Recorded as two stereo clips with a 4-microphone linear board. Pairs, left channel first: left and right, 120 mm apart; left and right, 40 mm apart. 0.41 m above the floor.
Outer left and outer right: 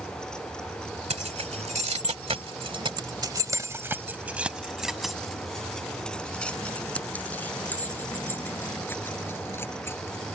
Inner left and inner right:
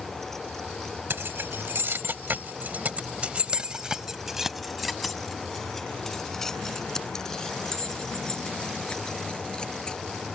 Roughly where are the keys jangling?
Right.